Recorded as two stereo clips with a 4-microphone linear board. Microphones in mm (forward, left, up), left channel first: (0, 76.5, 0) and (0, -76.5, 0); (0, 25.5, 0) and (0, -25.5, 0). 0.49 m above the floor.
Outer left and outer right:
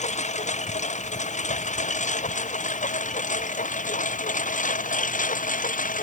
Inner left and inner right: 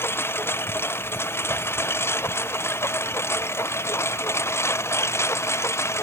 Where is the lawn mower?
50° left (ahead or behind); by 6.0 s 60° left (ahead or behind).